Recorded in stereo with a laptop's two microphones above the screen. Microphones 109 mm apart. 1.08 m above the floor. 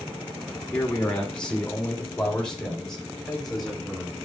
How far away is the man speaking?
About 2.5 m.